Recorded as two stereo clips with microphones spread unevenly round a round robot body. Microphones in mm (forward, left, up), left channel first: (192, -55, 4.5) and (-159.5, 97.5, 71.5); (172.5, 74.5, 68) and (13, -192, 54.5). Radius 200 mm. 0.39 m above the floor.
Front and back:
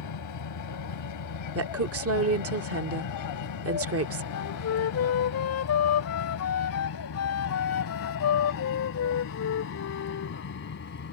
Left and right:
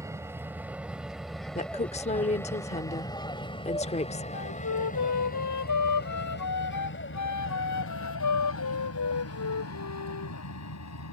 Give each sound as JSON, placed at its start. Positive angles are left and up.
{"t": 0.0, "sound": "an aircraft", "azimuth_deg": -40}
{"t": 1.6, "sound": "a woman speaking", "azimuth_deg": 115}
{"t": 4.3, "sound": "a flute", "azimuth_deg": 30}